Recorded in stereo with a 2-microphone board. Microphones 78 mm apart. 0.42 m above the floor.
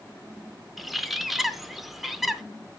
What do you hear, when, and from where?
0.8 s a bird: centre (ahead or behind), 0.6 m